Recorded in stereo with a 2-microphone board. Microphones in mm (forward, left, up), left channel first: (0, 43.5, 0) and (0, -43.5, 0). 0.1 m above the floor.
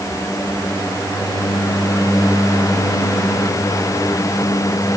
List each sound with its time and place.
Only background noise.